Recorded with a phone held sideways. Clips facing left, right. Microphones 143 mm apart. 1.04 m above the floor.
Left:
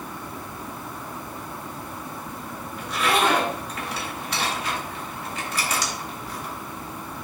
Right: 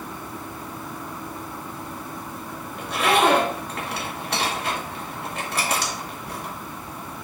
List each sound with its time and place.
2.8 s a zipper: 60° right (ahead or behind), 1.9 m